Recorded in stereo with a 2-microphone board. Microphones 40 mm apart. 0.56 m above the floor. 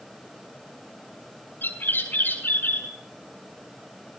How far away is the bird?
About 6.5 m.